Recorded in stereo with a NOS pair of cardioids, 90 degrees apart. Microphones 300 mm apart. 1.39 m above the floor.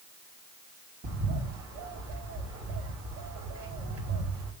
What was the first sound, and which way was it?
A bird, 55° right.